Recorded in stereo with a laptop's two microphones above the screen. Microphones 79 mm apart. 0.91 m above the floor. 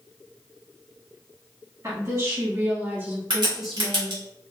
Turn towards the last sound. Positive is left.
turn(degrees=-80)